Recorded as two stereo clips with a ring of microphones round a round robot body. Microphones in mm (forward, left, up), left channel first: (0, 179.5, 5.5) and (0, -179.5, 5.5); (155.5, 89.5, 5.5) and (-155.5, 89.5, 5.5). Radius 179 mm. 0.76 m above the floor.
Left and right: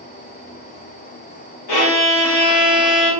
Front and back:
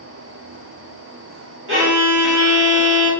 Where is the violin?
130° left, 1.2 m.